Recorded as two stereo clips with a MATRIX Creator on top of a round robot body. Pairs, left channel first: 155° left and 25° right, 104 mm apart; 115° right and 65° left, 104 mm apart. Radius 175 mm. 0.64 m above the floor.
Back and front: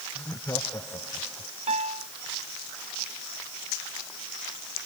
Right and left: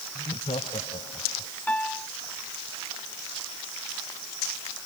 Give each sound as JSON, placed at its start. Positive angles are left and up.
{"t": 0.1, "sound": "laughter", "azimuth_deg": -140}
{"t": 1.7, "sound": "a piano", "azimuth_deg": -35}